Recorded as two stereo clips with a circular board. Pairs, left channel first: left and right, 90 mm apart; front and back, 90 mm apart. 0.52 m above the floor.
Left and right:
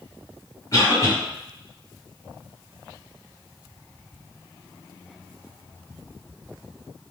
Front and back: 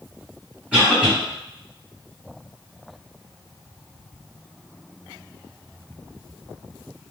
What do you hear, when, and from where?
0.7 s a cough: 110° left, 1.6 m